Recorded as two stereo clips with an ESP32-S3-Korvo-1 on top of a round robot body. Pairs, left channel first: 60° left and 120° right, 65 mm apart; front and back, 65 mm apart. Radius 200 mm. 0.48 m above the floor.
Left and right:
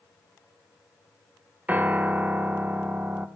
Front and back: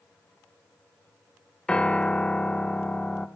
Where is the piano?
70° right, 1.0 m.